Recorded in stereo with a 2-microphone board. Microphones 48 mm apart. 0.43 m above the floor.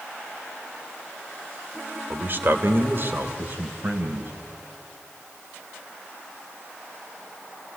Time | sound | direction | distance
2.1 | a man speaking | 45° right (ahead or behind) | 1.7 m